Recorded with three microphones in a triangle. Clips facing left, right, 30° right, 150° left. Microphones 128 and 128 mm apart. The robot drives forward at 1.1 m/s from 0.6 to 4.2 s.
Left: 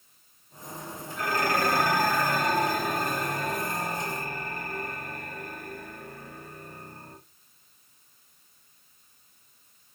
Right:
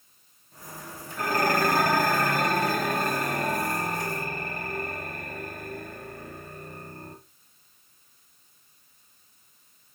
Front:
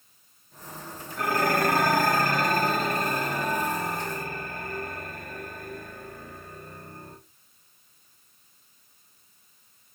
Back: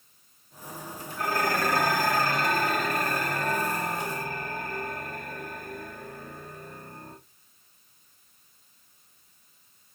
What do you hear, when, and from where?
1.2 s dishes clattering: 45° right, 3 m; by 7.2 s 125° right, 2.5 m